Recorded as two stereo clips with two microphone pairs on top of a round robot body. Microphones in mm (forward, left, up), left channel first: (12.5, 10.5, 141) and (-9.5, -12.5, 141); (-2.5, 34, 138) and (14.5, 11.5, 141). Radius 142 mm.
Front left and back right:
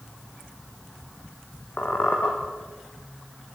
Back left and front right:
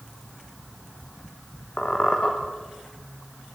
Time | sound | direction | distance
1.8 | a squeak | 80° left | 4.5 m